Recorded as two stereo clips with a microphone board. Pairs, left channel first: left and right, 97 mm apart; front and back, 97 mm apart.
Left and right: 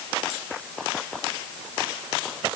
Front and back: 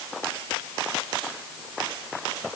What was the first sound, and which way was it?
Only background noise.